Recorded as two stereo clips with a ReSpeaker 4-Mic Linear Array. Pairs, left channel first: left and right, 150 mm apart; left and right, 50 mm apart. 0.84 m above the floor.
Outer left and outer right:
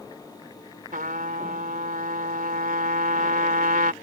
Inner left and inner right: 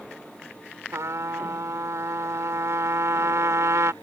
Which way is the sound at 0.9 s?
70° right (ahead or behind).